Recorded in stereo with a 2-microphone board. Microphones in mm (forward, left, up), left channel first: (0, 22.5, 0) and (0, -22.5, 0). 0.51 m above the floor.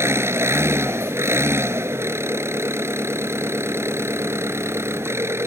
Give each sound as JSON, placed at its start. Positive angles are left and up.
{"t": 0.0, "sound": "an engine running", "side_deg": -80}